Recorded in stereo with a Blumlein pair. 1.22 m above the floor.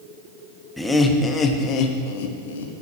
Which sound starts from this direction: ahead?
Laughter, at 0.8 s.